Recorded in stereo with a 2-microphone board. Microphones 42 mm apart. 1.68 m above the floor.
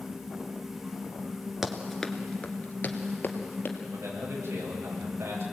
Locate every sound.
1.6 s running footsteps: 5° right (ahead or behind), 1.7 m; by 3.8 s 55° left (ahead or behind), 3 m
3.9 s a man speaking: 85° right, 8 m